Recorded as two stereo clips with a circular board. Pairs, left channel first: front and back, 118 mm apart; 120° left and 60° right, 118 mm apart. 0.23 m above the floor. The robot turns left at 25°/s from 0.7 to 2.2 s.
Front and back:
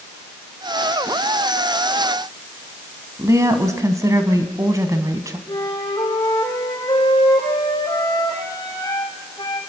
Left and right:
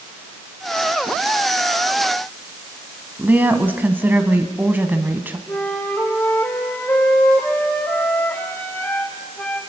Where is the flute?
50° left, 7.5 m.